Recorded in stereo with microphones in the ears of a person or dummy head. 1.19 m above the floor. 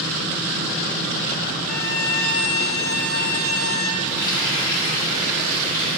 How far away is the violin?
About 1.5 m.